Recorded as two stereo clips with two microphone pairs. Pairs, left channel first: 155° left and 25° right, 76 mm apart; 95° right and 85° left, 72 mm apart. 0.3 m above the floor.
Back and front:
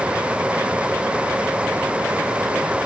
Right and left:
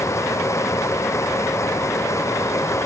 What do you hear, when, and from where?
Only background noise.